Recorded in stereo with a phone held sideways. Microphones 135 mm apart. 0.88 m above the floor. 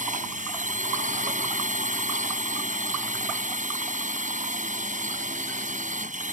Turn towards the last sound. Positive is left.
turn(degrees=-75)  # may be behind; listen again after turning